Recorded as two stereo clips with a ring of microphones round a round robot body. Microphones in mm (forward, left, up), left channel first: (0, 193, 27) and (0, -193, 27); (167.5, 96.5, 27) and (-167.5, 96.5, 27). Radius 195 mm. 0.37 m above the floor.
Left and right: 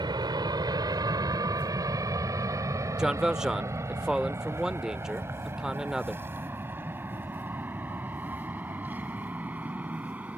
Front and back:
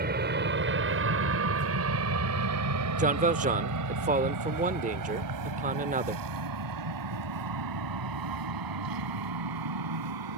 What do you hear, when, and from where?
0.0 s an aircraft: 160° right; by 10.4 s 175° right
3.0 s a man speaking: 175° right